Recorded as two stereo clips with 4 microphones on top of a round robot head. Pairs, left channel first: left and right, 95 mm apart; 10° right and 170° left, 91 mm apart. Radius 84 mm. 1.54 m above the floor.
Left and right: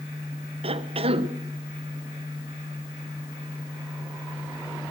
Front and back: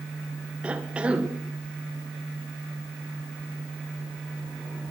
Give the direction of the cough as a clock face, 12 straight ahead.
4 o'clock.